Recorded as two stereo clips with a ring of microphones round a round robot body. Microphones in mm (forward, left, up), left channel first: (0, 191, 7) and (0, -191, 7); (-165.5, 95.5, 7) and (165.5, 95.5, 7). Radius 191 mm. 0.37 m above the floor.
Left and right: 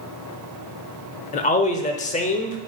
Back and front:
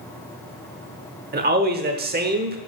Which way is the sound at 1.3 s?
35° left.